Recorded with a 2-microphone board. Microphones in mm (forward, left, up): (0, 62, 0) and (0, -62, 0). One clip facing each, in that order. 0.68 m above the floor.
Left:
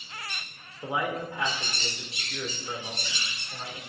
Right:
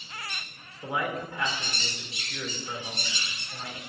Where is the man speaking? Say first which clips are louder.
Left 1 dB; 15° left (ahead or behind), 2.0 m.